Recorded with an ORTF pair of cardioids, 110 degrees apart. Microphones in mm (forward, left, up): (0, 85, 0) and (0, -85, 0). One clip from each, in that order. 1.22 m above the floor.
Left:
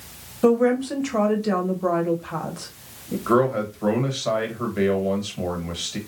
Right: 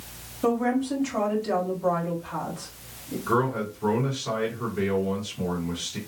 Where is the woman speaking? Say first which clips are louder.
Left 6 dB; 30° left, 1.0 m.